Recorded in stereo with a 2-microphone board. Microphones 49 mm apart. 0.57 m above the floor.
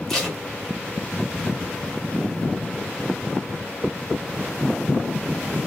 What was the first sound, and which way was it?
Tape being pulled, 5° left (ahead or behind).